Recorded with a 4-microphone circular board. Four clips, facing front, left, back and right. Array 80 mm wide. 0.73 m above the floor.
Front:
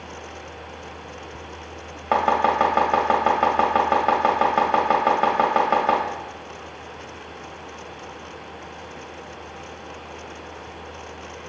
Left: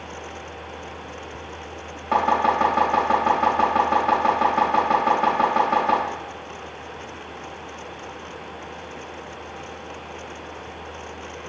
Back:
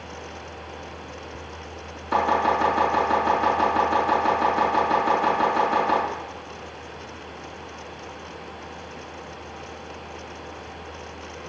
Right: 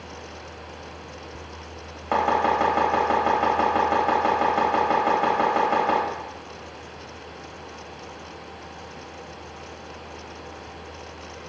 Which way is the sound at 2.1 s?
5° right.